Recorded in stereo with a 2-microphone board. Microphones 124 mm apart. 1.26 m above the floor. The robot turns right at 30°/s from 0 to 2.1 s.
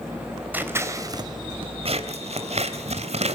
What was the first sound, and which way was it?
Scissors, 15° right (ahead or behind).